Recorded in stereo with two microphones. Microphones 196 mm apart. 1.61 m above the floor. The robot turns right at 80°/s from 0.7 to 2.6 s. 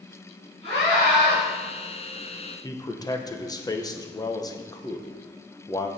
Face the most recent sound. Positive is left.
turn(degrees=20)  # may be behind; listen again after turning